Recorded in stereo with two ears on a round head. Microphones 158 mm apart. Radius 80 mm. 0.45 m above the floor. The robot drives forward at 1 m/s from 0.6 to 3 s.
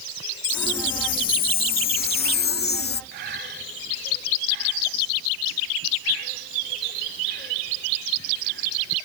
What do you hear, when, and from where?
0.4 s a chime: 50° left (ahead or behind); by 3.0 s 60° left (ahead or behind)
3.1 s breathing: 55° right (ahead or behind)